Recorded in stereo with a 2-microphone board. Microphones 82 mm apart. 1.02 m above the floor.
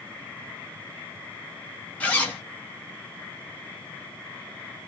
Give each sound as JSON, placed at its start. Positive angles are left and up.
{"t": 2.0, "sound": "a zipper", "side_deg": 15, "distance_m": 0.9}